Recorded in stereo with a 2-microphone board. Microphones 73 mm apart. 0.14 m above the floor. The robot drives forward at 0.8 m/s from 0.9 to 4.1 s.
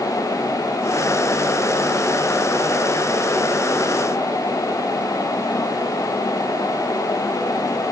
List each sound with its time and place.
Only background noise.